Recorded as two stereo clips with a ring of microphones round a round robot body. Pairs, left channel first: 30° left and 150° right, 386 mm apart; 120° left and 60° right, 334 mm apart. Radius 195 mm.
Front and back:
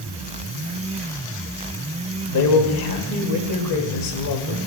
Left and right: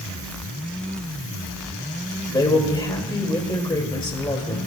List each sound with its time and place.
2.3 s a man speaking: 45° left, 1.7 m